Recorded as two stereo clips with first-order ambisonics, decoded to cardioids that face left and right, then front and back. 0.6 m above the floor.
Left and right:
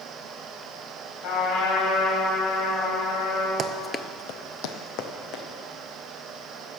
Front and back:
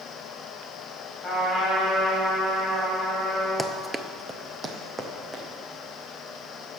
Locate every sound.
1.2 s a trumpet: 90° left, 4.5 m
3.6 s running footsteps: 90° right, 0.6 m; by 5.4 s 105° left, 2.5 m